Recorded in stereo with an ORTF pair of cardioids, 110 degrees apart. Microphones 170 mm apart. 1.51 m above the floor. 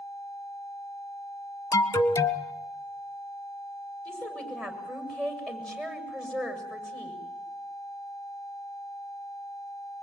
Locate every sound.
1.7 s an alarm: 20° left, 1.2 m
4.0 s a woman speaking: 5° left, 7 m